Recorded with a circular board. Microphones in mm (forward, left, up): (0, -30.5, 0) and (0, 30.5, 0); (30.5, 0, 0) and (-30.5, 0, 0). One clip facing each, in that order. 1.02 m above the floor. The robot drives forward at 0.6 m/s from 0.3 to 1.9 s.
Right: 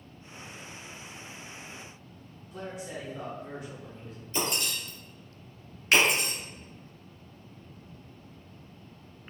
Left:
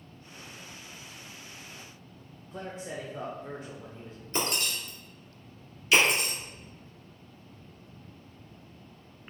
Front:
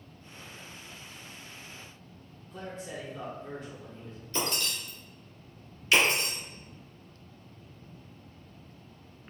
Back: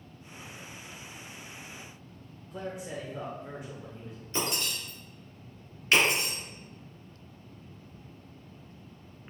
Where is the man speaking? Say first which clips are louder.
Even, back 2 dB; 110° left, 0.6 m.